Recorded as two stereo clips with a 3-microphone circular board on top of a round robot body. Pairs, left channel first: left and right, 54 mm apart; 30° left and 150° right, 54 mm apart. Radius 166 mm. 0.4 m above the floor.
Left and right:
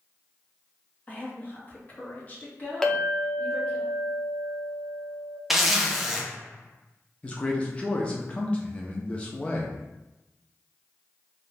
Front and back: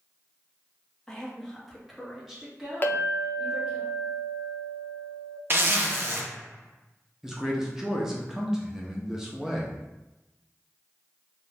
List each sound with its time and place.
1.1 s a woman speaking: 100° left, 1.5 m; by 3.8 s 150° left, 2.5 m
2.8 s a clink: 20° left, 0.8 m
5.5 s a zipper: 175° right, 1.0 m
7.2 s a man speaking: 135° left, 0.9 m